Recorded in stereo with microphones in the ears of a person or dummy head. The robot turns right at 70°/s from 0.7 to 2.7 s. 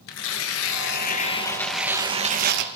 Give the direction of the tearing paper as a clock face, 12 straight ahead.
9 o'clock.